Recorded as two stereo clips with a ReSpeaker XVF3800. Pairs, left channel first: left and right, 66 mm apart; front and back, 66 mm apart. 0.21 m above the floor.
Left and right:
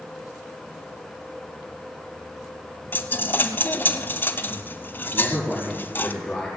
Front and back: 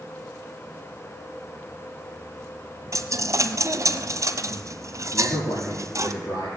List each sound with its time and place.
2.9 s a dropped coin: 145° left, 0.9 m
5.1 s a man speaking: straight ahead, 5 m